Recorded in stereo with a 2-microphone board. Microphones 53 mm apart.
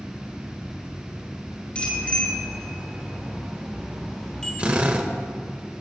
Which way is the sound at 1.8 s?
25° left (ahead or behind).